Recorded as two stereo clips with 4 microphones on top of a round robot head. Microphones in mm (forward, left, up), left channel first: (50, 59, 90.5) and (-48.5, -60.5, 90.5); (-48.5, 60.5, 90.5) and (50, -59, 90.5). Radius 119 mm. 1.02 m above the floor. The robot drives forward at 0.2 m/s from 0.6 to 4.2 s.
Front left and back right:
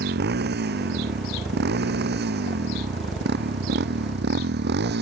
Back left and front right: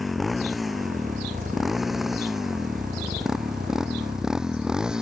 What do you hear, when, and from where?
0.0 s a motorcycle: 140° right; by 5.0 s 135° right